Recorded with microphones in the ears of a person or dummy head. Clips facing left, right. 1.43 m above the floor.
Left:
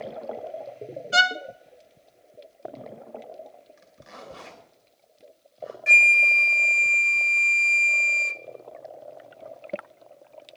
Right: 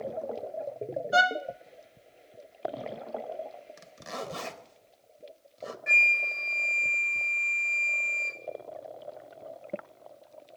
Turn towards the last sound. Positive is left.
turn(degrees=35)  # may be behind; listen again after turning